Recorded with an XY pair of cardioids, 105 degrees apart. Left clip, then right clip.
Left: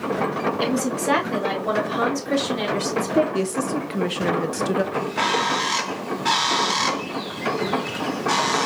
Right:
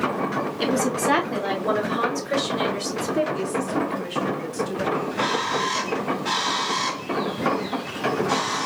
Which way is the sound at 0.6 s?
Straight ahead.